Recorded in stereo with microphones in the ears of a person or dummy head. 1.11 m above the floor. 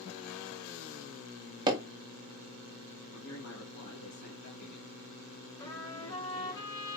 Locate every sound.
1.7 s hammering: 25° right (ahead or behind), 0.9 m
3.1 s a man speaking: 70° left (ahead or behind), 1.8 m
5.6 s a trumpet: 20° left (ahead or behind), 1.5 m